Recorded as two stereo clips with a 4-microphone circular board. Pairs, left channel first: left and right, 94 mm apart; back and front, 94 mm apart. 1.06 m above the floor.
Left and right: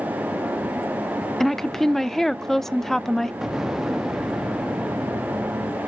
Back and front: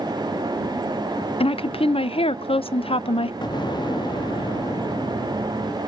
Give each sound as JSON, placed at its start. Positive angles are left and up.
{"t": 1.4, "sound": "a woman speaking", "azimuth_deg": 175, "distance_m": 0.5}
{"t": 3.4, "sound": "an explosion", "azimuth_deg": -175, "distance_m": 0.6}